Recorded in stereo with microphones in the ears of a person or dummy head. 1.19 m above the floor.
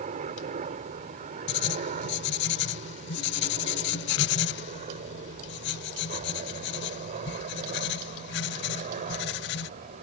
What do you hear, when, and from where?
0.0 s a helicopter: 40° right (ahead or behind)
1.5 s writing: 50° left (ahead or behind)